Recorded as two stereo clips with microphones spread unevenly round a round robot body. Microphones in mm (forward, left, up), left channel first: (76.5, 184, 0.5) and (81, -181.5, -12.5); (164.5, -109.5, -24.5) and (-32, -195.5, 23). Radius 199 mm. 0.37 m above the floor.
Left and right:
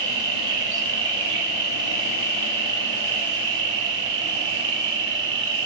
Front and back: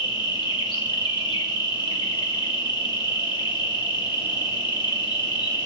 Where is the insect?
35° right, 1.4 m.